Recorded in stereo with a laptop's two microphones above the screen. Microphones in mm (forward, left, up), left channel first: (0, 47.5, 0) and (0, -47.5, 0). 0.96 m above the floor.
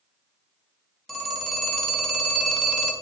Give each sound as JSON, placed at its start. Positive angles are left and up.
{"t": 1.1, "sound": "a phone ringing", "side_deg": 0, "distance_m": 0.9}